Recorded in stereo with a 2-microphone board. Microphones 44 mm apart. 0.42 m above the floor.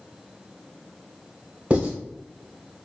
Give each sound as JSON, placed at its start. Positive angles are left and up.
{"t": 1.7, "sound": "writing", "side_deg": -30, "distance_m": 2.0}